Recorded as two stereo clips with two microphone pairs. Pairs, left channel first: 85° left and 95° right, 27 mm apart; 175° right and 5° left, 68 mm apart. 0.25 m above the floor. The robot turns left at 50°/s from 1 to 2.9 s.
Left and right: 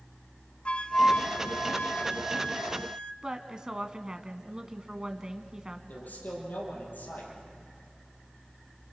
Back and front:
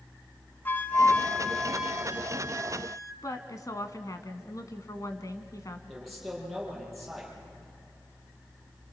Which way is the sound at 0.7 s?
130° left.